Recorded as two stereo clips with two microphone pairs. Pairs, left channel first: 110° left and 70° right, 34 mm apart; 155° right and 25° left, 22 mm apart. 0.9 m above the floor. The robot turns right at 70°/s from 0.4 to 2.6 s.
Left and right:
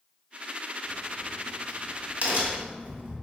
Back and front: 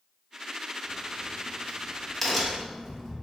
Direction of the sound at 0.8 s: 175° left.